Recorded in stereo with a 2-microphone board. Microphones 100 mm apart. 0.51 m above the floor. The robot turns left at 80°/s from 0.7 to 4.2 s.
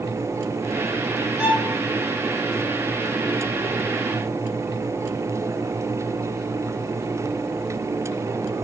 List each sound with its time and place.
1.4 s a violin: 5° right (ahead or behind), 4.5 m; by 1.8 s 35° right (ahead or behind), 4.5 m